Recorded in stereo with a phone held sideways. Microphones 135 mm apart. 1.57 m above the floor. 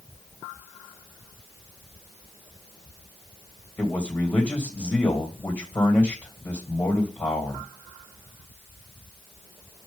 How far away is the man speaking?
About 2.5 m.